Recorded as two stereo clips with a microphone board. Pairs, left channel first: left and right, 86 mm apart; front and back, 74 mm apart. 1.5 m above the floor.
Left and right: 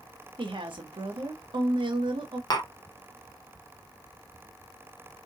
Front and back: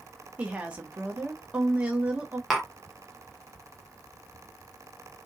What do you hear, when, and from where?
0.4 s a woman speaking: 105° right, 1.0 m
2.5 s tapping: 90° left, 0.9 m